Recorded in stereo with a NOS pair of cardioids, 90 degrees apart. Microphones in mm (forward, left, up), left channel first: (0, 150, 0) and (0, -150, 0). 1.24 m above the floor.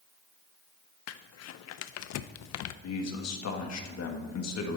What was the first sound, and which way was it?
Crumpling, 65° left.